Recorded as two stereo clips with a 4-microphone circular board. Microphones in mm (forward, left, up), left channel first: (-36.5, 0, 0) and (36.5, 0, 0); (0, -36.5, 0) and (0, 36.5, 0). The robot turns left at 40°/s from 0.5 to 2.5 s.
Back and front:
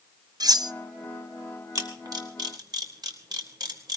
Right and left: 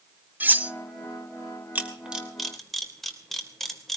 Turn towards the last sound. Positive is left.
turn(degrees=-5)